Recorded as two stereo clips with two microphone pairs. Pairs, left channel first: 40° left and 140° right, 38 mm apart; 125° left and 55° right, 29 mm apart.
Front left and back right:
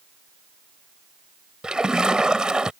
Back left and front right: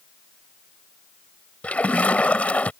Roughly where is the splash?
Behind left.